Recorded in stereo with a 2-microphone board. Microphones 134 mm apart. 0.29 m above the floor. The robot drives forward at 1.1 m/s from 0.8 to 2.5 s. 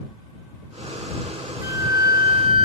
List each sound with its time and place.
1.6 s a flute: 20° right (ahead or behind), 1.1 m; by 2.6 s 40° right (ahead or behind), 0.6 m